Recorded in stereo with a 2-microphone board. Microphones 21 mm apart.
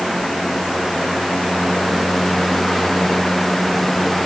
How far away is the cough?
I don't hear a cough.